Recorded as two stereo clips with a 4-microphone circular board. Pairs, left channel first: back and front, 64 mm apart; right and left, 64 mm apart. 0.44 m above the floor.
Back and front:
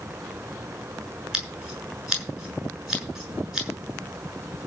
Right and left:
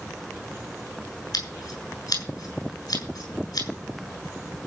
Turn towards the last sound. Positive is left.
turn(degrees=-80)